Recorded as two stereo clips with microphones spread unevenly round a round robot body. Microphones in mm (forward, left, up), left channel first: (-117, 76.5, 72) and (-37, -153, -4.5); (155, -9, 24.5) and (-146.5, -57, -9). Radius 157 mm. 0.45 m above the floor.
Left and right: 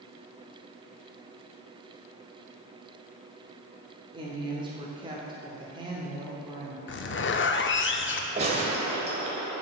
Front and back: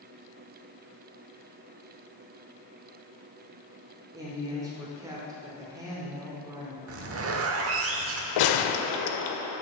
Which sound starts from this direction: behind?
A zipper, at 6.9 s.